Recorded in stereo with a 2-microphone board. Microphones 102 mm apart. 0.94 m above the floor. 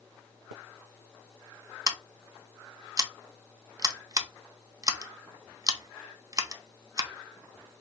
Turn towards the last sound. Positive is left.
turn(degrees=-35)  # may be behind; listen again after turning